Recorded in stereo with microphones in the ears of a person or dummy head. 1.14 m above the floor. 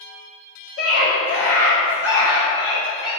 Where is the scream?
75° left (ahead or behind), 1.9 m; by 3.1 s 65° left (ahead or behind), 3 m.